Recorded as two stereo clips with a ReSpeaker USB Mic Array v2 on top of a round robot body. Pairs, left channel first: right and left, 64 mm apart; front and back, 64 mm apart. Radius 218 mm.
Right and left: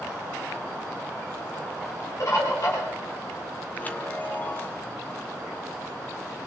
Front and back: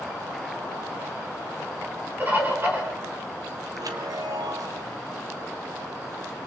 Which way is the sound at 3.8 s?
155° right.